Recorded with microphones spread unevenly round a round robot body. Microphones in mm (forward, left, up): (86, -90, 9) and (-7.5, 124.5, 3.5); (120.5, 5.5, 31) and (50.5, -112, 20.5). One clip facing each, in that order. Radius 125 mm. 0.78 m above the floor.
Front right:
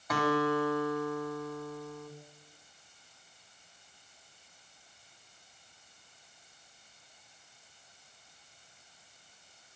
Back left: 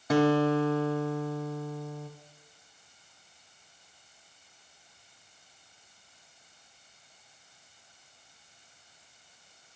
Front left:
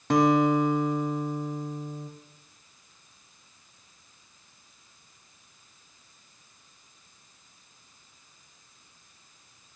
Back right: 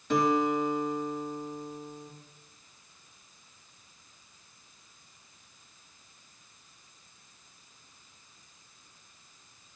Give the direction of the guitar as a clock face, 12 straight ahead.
10 o'clock.